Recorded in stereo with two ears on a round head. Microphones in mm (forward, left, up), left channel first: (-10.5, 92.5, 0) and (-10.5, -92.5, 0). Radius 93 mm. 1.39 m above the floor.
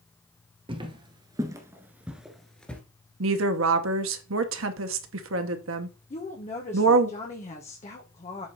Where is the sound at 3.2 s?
65° right (ahead or behind), 1.0 m.